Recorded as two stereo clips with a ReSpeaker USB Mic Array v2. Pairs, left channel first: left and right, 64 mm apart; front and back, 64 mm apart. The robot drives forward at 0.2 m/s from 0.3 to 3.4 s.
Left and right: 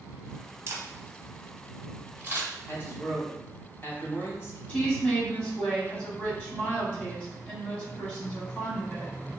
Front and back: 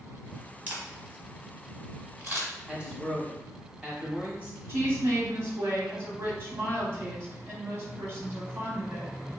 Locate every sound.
0.7 s a camera shutter: 125° right, 1.0 m; by 2.5 s 140° right, 1.2 m
2.7 s a man speaking: 105° left, 1.2 m; by 4.6 s 115° left, 1.3 m
4.7 s a woman speaking: 155° left, 1.4 m